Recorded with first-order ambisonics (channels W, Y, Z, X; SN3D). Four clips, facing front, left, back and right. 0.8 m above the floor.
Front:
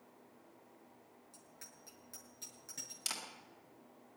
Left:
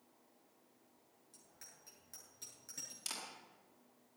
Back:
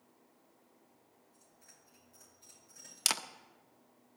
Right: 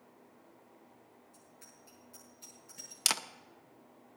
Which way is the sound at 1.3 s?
35° left.